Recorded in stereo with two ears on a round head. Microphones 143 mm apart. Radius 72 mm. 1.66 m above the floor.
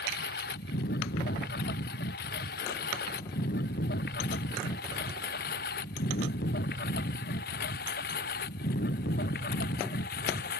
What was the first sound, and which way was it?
A lawn mower, 60° left (ahead or behind).